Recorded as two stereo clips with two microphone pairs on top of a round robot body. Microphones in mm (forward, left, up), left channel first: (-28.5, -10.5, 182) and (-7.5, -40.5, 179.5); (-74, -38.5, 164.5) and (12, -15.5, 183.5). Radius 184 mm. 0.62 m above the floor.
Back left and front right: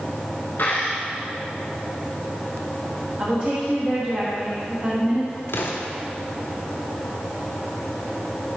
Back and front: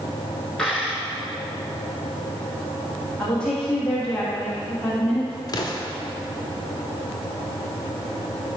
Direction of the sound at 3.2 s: 100° right.